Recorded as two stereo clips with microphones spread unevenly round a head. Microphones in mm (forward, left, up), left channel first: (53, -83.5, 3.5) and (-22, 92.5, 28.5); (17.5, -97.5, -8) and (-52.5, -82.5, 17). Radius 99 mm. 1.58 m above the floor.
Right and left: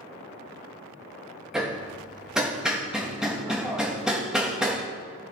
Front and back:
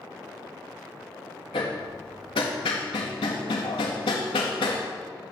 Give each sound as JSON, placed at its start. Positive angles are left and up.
{"t": 1.5, "sound": "hammering", "azimuth_deg": 30, "distance_m": 1.7}